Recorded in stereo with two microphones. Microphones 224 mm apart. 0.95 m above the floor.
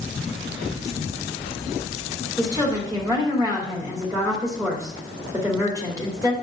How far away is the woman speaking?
About 2.5 m.